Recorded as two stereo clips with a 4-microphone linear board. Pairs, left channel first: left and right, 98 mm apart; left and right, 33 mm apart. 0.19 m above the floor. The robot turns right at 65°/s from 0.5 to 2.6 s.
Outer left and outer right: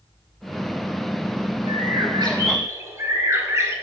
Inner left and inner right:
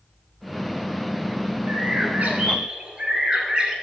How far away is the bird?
About 1.0 m.